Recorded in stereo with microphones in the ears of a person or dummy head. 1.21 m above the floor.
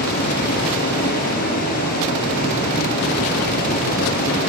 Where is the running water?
50° left (ahead or behind), 5 m.